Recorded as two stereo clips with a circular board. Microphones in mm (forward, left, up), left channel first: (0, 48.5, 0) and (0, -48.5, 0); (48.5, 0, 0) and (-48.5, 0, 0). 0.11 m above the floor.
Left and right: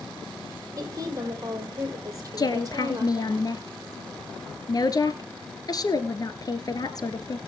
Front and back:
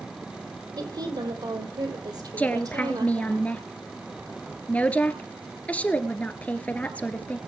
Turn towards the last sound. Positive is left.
turn(degrees=70)